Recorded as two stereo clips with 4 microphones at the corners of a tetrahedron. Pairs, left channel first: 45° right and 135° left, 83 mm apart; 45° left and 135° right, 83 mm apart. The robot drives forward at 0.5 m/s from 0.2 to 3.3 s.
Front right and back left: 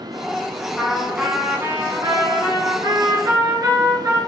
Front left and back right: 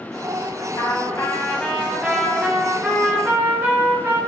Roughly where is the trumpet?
Ahead left.